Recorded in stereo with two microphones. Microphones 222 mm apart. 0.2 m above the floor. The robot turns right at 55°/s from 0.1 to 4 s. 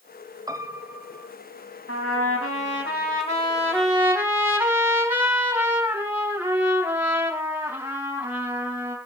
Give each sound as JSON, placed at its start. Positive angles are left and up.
{"t": 0.5, "sound": "a piano", "side_deg": -15, "distance_m": 0.9}
{"t": 1.9, "sound": "a trumpet", "azimuth_deg": 75, "distance_m": 4.0}